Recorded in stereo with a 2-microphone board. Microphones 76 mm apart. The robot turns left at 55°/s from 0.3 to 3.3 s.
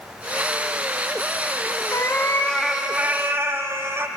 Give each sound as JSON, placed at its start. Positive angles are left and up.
{"t": 1.9, "sound": "a cat meowing", "azimuth_deg": 45, "distance_m": 0.5}